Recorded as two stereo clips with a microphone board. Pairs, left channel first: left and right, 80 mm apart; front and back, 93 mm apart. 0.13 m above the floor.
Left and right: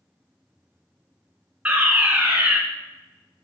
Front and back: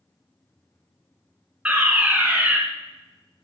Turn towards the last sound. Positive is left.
turn(degrees=-130)